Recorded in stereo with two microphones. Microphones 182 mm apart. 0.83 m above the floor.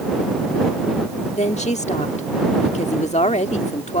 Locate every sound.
1.3 s a woman speaking: 35° left (ahead or behind)